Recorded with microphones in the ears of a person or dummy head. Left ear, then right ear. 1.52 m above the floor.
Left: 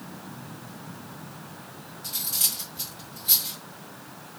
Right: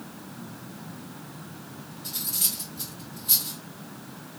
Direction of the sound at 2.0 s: 25° left (ahead or behind).